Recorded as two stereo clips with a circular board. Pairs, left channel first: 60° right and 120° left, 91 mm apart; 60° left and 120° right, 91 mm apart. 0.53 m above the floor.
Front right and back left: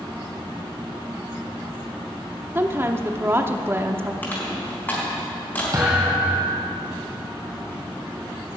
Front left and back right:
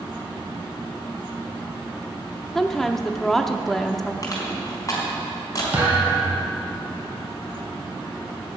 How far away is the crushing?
About 4 m.